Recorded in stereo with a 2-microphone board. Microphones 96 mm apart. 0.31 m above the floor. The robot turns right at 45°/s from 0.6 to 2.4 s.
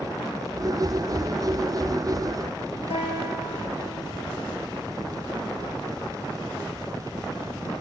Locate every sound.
2.9 s a guitar: 80° left, 6.5 m